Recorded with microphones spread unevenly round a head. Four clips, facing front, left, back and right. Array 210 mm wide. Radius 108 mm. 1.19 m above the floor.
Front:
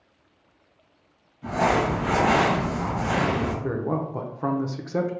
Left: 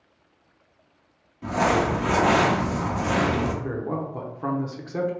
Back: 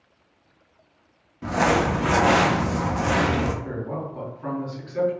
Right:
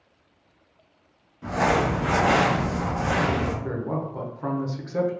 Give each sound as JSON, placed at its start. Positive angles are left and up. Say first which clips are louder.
{"t": 1.4, "sound": "crumpling", "louder": "left 1 dB, back 1 dB", "azimuth_deg": 170, "distance_m": 1.0}
{"t": 3.6, "sound": "a man speaking", "louder": "even, front 4 dB", "azimuth_deg": 15, "distance_m": 0.7}